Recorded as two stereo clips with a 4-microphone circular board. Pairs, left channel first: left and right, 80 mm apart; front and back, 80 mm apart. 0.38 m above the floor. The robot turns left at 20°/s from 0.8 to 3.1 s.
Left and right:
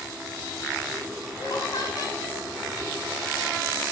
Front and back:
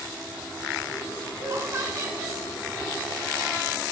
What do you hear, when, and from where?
1.4 s laughter: 135° left, 5 m; by 2.4 s 115° left, 5 m